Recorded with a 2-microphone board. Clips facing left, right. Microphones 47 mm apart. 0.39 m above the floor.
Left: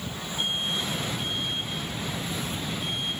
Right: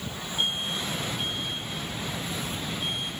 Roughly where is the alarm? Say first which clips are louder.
Even; right.